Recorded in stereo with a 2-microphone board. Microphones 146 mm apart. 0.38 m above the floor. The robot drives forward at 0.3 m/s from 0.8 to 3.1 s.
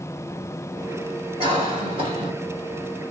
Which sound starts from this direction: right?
A cough, at 1.4 s.